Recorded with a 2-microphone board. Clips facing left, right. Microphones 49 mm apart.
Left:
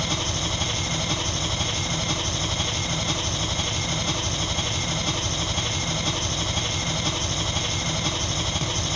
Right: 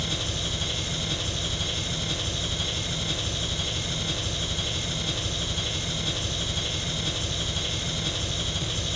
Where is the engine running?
70° left (ahead or behind), 3 m.